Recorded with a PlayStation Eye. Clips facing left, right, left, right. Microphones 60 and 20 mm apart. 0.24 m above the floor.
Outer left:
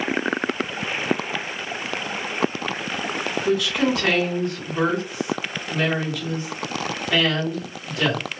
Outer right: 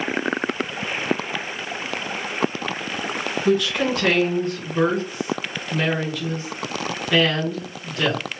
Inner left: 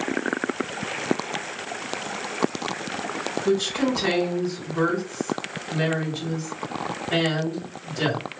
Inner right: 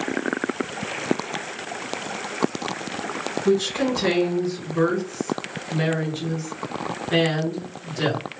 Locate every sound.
3.5 s a woman speaking: centre (ahead or behind), 2.5 m